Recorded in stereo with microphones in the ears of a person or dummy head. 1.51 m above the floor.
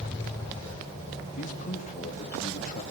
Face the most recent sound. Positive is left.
turn(degrees=40)  # may be behind; listen again after turning